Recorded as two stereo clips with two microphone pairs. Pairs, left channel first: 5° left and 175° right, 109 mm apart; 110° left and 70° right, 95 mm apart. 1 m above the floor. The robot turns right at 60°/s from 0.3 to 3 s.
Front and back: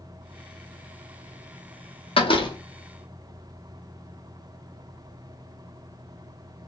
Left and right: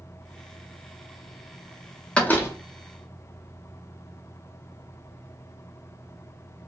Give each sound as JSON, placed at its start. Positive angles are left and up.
{"t": 2.1, "sound": "a door slam", "azimuth_deg": 25, "distance_m": 0.5}